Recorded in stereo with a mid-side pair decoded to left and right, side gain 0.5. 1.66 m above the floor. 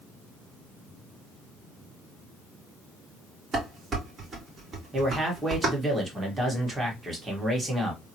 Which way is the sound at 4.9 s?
15° right.